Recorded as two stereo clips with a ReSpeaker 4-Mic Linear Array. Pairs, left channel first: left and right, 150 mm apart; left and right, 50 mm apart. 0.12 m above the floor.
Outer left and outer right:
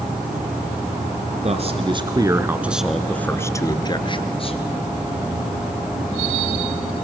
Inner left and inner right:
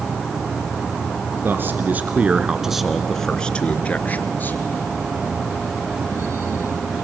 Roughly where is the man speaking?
Right.